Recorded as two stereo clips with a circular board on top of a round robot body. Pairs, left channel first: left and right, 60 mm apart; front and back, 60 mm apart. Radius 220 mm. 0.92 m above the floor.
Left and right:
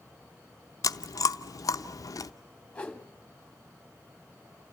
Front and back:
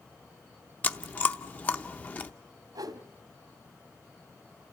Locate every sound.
0.8 s chewing: 65° left, 0.7 m
2.8 s a whoosh: 165° left, 1.4 m